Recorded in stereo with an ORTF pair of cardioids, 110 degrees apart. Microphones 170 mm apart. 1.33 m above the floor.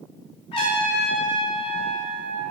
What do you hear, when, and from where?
0.5 s a trumpet: 35° left, 2.5 m